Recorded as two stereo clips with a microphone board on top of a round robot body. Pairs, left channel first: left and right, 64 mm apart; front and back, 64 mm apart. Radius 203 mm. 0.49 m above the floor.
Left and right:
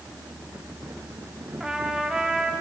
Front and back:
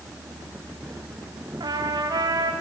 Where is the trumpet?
170° right, 1.5 m.